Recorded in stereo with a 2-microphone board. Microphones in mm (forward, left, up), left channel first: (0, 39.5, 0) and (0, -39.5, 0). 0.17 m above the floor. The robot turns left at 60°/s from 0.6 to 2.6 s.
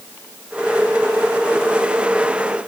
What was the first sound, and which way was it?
Only background noise.